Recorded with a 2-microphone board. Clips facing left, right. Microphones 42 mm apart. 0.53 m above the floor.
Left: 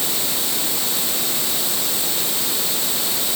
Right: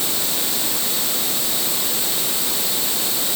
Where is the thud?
I don't hear a thud.